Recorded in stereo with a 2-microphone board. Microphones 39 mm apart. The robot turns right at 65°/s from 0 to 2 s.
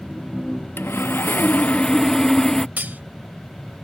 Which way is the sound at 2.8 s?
50° right (ahead or behind).